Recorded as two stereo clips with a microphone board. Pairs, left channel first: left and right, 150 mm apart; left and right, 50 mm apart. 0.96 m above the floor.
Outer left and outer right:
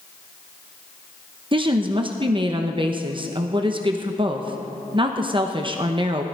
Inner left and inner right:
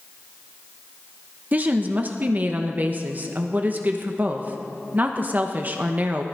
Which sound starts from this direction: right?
A woman speaking, at 1.5 s.